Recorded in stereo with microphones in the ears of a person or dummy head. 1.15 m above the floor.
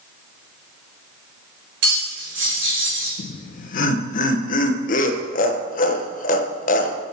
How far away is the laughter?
About 1.0 m.